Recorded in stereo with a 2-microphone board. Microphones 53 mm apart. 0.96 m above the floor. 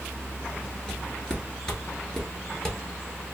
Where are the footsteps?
15° left (ahead or behind), 1.0 m; by 2.8 s 10° left (ahead or behind), 1.1 m.